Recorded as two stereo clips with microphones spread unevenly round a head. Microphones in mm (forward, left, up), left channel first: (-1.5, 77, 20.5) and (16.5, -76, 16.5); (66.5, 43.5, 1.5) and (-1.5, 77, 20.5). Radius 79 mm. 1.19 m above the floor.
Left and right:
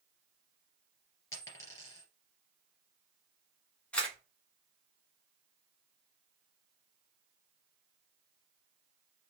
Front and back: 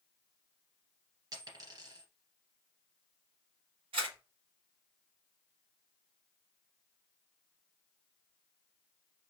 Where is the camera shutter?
Straight behind, 1.6 m.